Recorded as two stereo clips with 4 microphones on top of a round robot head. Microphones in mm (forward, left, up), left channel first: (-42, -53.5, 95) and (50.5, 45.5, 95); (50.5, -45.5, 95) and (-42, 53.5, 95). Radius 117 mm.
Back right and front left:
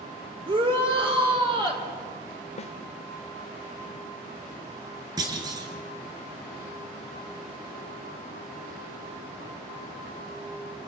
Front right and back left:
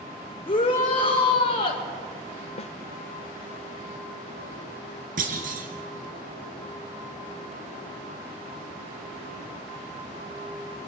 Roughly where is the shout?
Ahead.